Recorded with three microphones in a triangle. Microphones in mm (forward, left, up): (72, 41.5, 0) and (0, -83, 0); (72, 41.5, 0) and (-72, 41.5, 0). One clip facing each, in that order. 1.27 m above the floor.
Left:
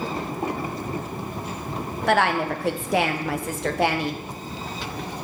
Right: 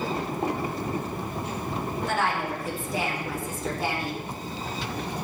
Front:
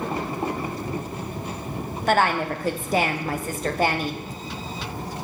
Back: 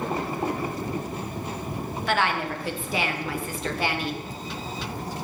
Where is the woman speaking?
45° left, 0.9 m.